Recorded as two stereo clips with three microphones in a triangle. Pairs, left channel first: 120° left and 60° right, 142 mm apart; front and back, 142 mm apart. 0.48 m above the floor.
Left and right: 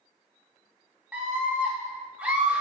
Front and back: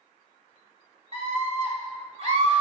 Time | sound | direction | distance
1.1 | a scream | 140° right | 2 m